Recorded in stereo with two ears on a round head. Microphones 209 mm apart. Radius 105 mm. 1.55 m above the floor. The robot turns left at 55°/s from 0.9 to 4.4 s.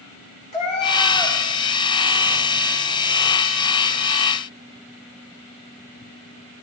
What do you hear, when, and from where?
0.5 s a cat meowing: 35° left (ahead or behind), 3 m; by 1.4 s 55° left (ahead or behind), 3 m